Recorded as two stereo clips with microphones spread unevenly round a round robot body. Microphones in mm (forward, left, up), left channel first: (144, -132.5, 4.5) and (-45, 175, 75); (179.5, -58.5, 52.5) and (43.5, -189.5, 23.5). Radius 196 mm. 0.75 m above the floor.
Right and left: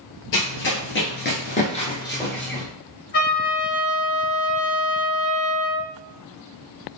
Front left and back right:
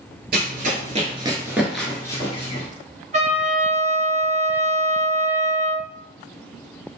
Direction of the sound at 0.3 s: 120° right.